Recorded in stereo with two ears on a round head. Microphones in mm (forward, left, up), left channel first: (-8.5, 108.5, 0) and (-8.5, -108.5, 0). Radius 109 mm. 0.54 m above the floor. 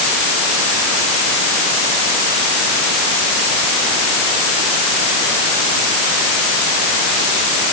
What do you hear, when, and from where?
Only background noise.